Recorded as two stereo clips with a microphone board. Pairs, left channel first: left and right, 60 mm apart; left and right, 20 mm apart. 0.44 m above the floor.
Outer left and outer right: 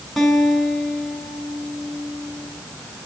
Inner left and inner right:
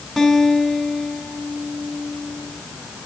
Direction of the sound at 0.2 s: 5° left (ahead or behind).